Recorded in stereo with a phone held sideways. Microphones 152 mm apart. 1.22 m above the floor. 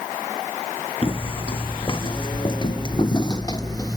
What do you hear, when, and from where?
1.0 s footsteps: 35° left (ahead or behind); by 4.0 s 25° left (ahead or behind)